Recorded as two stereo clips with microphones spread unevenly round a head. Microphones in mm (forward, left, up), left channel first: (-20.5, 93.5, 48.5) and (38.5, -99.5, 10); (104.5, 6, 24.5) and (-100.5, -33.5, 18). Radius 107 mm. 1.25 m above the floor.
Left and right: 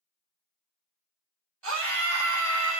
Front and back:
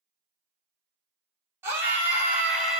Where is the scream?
90° right, 2 m; by 2.8 s 80° right, 1.4 m.